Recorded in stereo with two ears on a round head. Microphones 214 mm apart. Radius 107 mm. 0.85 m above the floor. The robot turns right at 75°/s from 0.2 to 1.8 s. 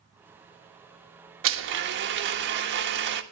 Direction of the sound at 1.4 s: 60° right (ahead or behind).